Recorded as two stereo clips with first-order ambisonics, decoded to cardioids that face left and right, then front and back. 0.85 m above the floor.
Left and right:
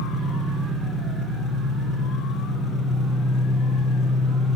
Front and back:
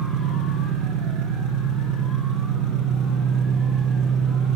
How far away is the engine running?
About 3.5 m.